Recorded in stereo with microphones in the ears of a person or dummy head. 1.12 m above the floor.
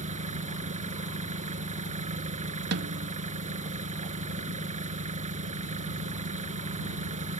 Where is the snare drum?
60° right (ahead or behind).